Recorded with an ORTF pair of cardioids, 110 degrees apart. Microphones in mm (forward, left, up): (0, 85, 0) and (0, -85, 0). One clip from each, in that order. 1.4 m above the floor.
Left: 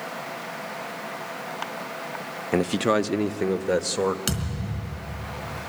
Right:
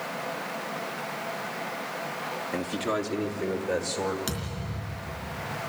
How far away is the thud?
About 3.5 m.